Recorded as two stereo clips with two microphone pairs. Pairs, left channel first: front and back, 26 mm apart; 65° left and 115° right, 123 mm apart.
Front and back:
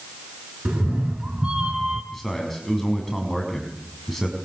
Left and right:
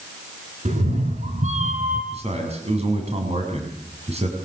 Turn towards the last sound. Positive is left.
turn(degrees=-80)